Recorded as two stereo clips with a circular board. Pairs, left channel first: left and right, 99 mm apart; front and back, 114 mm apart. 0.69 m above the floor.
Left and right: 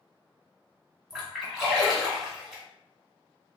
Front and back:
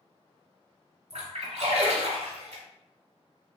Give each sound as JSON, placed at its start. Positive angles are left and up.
{"t": 1.1, "sound": "a splash", "azimuth_deg": -170, "distance_m": 1.5}